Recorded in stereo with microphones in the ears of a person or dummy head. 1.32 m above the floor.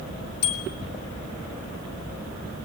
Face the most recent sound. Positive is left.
turn(degrees=60)  # may be behind; listen again after turning